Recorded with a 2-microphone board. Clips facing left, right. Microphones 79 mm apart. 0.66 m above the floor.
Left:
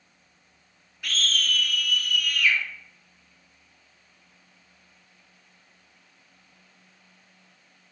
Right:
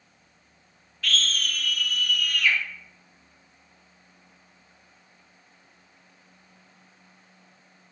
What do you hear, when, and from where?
1.0 s a scream: 15° left (ahead or behind), 0.6 m; by 2.6 s 45° right (ahead or behind), 1.5 m